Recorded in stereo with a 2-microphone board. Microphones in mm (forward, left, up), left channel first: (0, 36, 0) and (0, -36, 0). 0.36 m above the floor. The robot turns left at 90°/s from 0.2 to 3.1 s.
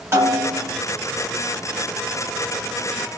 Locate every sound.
0.1 s a snare drum: 130° right, 1.8 m; by 0.8 s straight behind, 1.8 m